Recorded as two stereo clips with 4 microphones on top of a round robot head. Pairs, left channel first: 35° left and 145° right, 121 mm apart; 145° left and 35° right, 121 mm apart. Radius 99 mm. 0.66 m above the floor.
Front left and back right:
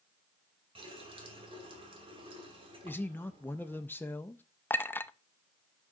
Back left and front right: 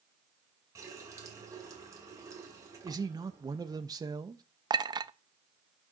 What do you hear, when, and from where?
0.8 s a running tap: 100° right, 2 m
2.8 s a man speaking: 25° right, 0.6 m
4.7 s a clink: 25° right, 0.6 m